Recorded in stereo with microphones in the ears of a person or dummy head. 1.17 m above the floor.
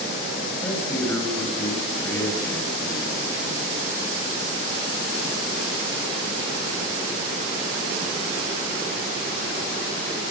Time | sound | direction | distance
0.6 | a man speaking | 15° left (ahead or behind) | 7 m